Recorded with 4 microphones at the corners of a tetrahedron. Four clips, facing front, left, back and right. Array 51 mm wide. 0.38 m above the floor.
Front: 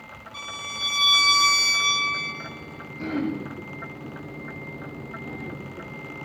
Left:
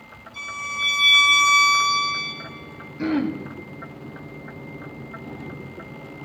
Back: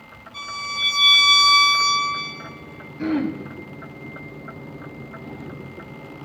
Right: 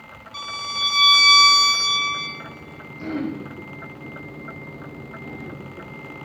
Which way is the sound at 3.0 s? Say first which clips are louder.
Left 4 dB, back 4 dB; 120° left.